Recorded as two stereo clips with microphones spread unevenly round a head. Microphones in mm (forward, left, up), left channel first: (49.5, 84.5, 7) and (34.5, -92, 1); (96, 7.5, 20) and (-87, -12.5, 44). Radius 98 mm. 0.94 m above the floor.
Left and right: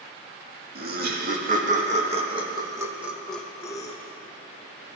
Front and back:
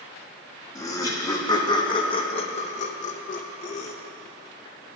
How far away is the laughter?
About 2 m.